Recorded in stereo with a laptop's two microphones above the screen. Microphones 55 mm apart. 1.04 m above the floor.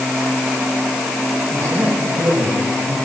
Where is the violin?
No violin in this recording.